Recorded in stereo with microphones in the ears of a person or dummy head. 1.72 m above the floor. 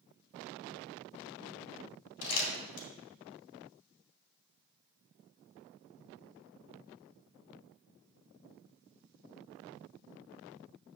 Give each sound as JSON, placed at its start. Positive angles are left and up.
{"t": 2.2, "sound": "crumpling", "side_deg": 80, "distance_m": 2.5}